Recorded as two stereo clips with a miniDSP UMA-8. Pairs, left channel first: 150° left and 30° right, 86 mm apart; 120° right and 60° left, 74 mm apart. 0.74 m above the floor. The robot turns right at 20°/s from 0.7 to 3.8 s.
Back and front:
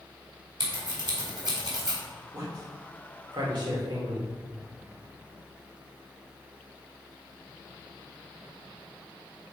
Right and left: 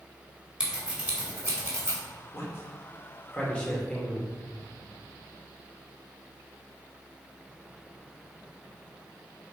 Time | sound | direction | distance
0.6 | scissors | 15° right | 2.5 m
2.3 | a man speaking | 75° right | 2.5 m